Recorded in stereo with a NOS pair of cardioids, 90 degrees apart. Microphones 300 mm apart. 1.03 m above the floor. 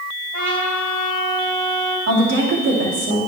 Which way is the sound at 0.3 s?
70° right.